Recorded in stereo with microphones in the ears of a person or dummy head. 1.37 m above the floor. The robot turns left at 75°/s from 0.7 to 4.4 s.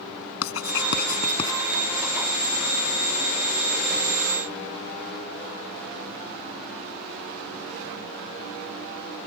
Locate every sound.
0.4 s writing: 80° left; by 1.6 s 10° left (ahead or behind)